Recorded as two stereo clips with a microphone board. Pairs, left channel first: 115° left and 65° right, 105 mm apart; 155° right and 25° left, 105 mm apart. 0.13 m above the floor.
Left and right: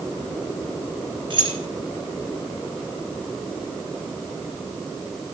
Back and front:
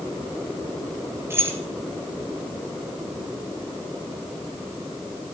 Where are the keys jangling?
40° right, 1.7 m.